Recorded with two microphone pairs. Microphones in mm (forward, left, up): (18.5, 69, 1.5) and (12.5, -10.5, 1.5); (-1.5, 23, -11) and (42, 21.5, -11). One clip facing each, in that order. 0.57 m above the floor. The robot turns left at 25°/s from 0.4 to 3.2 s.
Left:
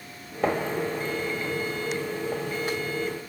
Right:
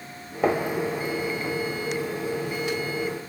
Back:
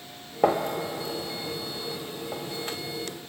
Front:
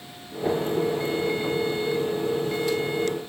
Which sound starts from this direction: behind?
A gunshot, at 0.4 s.